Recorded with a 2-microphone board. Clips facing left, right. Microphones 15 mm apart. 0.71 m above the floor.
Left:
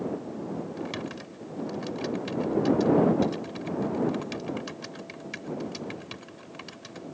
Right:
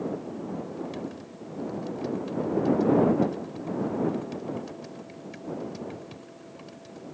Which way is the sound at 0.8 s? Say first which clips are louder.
Left 1 dB; 35° left (ahead or behind).